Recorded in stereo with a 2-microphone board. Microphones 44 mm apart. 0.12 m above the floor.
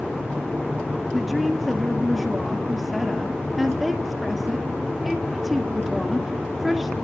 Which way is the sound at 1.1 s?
Centre (ahead or behind).